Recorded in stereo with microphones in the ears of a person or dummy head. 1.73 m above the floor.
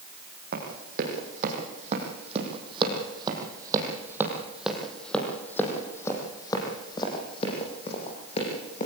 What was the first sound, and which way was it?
Running footsteps, 55° right (ahead or behind).